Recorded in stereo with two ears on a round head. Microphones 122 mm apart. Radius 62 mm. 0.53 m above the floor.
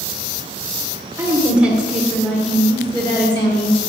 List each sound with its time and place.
1.2 s a woman speaking: 20° right (ahead or behind), 2.0 m; by 3.8 s 40° left (ahead or behind), 2 m